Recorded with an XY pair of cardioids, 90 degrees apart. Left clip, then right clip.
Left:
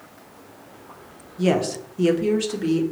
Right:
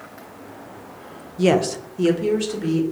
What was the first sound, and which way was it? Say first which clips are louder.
A woman speaking: right 3 dB; 35° right.